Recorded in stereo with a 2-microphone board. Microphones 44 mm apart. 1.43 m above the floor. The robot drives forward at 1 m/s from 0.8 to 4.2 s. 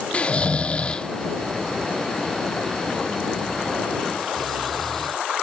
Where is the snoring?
30° left (ahead or behind); by 5.2 s 5° left (ahead or behind).